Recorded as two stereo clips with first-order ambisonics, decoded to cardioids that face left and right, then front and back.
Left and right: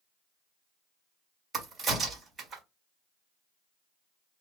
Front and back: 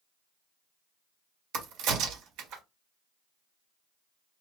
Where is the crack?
165° right, 2.5 m.